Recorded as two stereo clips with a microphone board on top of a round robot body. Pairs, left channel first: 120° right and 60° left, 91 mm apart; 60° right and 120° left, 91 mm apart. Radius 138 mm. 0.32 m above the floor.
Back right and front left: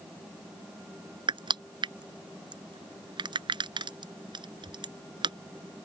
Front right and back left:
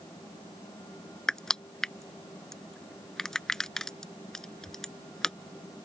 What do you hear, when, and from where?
1.3 s crushing: 25° left